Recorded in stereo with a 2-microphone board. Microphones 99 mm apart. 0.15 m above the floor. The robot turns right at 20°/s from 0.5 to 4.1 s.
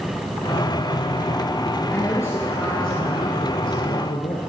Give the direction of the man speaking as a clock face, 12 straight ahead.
11 o'clock.